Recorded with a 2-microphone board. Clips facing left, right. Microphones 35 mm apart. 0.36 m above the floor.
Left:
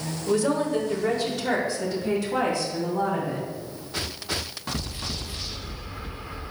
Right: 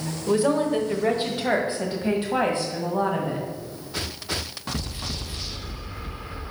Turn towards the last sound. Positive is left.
turn(degrees=-45)  # may be behind; listen again after turning